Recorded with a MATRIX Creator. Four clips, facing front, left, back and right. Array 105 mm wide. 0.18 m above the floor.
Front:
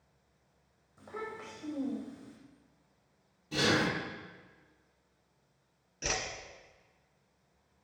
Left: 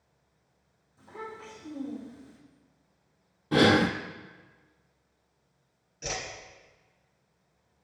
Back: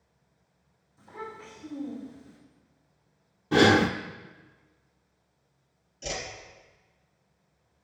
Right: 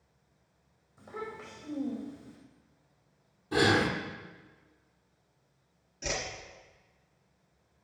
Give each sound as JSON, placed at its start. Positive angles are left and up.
{"t": 1.0, "sound": "a child speaking", "azimuth_deg": -25, "distance_m": 5.5}
{"t": 3.5, "sound": "breathing", "azimuth_deg": 145, "distance_m": 0.7}
{"t": 6.0, "sound": "a whoosh", "azimuth_deg": 0, "distance_m": 1.6}